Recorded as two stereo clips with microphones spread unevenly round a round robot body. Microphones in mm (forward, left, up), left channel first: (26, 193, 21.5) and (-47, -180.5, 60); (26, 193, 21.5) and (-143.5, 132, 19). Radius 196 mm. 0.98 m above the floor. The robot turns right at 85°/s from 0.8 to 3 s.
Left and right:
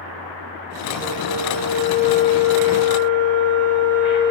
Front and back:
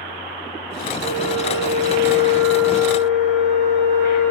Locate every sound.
1.0 s a flute: straight behind, 10 m; by 4.3 s 10° right, 10 m